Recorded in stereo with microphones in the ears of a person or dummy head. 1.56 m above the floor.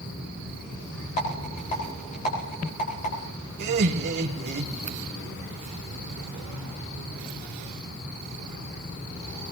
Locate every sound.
1.2 s a rattle: 35° left (ahead or behind), 4.5 m
3.6 s laughter: 55° right (ahead or behind), 2.5 m